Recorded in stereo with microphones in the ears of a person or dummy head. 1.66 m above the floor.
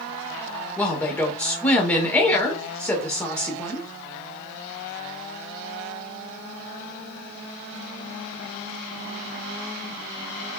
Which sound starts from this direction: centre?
A woman speaking, at 0.8 s.